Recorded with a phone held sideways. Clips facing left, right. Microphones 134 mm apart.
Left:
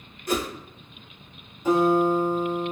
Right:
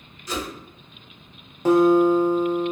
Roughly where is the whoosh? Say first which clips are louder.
Left 4 dB; left.